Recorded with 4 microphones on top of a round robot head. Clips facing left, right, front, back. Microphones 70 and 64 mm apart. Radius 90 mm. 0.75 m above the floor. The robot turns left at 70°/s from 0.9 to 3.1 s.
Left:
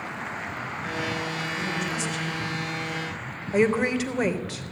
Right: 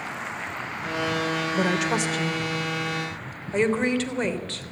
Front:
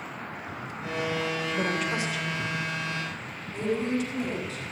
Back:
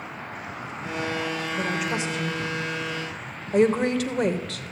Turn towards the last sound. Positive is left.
turn(degrees=170)